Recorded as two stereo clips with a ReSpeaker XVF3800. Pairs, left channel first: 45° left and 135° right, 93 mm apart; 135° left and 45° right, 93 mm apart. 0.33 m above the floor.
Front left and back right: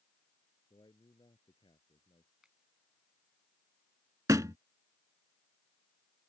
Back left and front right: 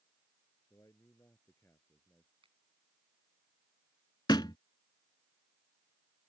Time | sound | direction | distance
0.7 | a man speaking | 80° left | ?
2.4 | a finger snap | 50° right | ?
4.3 | a thud | 175° left | ?